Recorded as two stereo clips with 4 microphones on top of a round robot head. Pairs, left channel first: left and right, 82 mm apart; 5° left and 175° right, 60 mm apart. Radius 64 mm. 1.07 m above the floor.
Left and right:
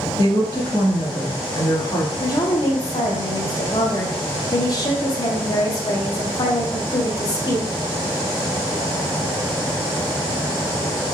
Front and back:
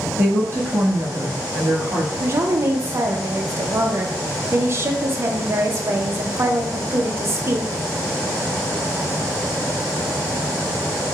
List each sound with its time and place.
0.2 s a woman speaking: 140° left, 1.4 m
2.2 s a woman speaking: 135° left, 0.6 m